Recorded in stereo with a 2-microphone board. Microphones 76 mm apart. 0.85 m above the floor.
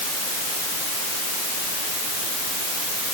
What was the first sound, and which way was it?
Only background noise.